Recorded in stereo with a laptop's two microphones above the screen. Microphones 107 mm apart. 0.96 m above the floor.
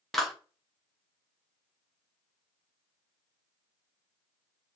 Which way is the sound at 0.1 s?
Centre (ahead or behind).